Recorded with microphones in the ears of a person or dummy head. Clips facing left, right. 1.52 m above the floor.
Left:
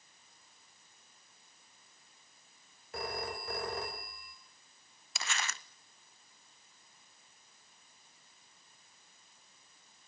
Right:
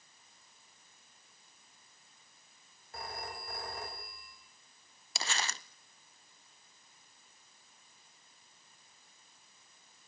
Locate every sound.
2.9 s a phone ringing: 65° left (ahead or behind), 4 m
5.2 s crumpling: 30° right (ahead or behind), 0.6 m